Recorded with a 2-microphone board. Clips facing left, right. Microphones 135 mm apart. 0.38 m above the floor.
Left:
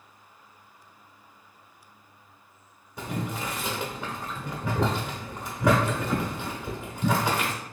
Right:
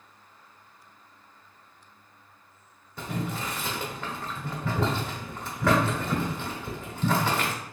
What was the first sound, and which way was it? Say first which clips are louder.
Boiling: even; 15° left (ahead or behind).